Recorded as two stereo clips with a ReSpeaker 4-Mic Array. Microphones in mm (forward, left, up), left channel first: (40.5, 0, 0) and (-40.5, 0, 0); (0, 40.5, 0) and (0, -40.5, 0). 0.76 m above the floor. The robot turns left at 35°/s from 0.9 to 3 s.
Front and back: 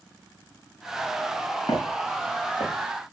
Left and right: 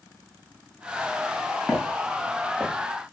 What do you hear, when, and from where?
1.7 s footsteps: 15° left, 4 m; by 2.7 s 10° right, 3.5 m